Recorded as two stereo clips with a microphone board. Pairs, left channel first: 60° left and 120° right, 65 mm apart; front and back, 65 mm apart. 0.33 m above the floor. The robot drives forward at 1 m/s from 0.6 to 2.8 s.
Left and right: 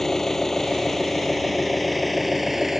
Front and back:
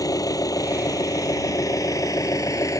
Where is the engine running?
25° right; by 2.8 s 35° right.